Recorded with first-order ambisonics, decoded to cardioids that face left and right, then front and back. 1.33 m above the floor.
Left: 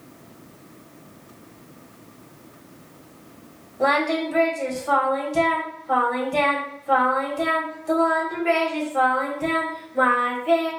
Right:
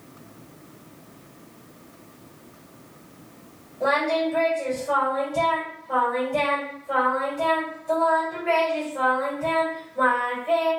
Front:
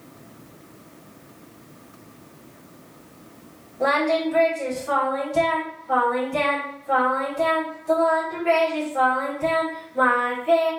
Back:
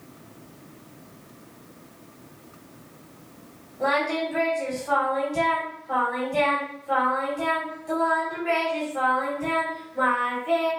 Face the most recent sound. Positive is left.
turn(degrees=80)